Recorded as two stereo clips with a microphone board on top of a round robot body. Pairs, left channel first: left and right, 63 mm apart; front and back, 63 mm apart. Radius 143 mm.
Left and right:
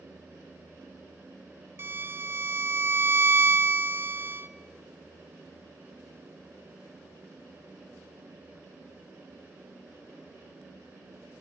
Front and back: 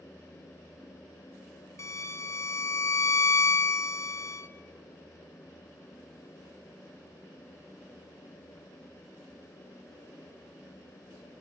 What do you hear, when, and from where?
1.8 s a violin: 35° right, 1.1 m